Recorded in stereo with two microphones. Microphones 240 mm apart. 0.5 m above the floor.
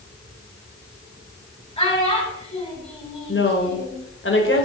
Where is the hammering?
No hammering in this recording.